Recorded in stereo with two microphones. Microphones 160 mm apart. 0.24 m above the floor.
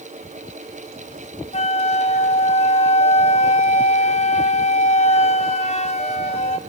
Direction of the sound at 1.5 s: 40° left (ahead or behind).